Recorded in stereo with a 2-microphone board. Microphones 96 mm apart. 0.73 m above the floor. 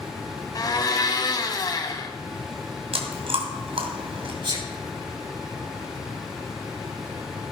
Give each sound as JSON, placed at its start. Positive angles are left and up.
{"t": 0.6, "sound": "a blender", "side_deg": 45, "distance_m": 1.4}
{"t": 2.9, "sound": "chewing", "side_deg": -85, "distance_m": 2.0}
{"t": 4.4, "sound": "a sneeze", "side_deg": -60, "distance_m": 5.5}